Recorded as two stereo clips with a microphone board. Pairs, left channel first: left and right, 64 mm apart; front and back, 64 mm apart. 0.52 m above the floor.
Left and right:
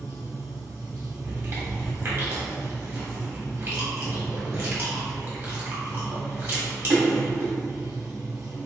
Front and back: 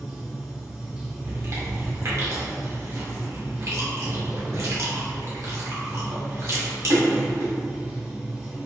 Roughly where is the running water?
Right.